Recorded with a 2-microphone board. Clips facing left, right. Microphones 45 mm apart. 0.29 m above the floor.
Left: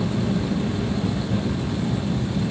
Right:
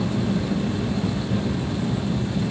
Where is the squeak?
I don't hear a squeak.